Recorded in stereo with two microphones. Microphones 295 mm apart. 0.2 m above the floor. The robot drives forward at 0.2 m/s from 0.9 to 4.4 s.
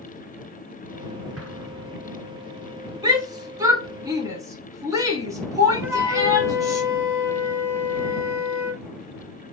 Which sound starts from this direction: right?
An explosion, at 1.4 s.